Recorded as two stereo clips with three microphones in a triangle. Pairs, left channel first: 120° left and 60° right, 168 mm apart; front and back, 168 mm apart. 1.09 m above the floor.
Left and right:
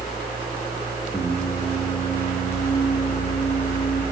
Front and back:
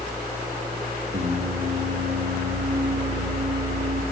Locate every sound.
1.1 s singing: straight behind, 5 m